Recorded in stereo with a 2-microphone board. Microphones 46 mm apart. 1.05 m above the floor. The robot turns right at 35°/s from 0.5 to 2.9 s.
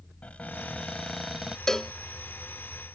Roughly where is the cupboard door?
Behind left.